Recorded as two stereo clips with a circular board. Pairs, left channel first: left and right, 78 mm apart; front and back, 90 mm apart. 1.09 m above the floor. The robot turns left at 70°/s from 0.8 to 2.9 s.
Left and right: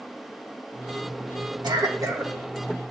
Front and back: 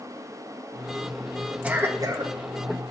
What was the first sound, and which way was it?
A cough, 105° right.